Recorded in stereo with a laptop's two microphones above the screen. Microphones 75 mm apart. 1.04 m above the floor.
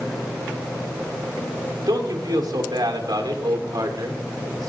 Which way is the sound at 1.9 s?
80° right.